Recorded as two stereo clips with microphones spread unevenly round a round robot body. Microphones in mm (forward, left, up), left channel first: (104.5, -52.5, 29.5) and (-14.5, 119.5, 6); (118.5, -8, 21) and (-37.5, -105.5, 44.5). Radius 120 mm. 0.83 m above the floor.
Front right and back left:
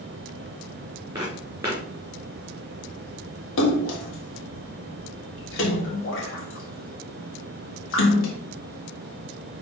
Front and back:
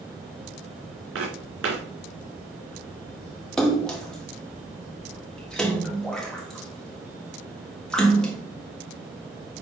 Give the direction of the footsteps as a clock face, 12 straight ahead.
5 o'clock.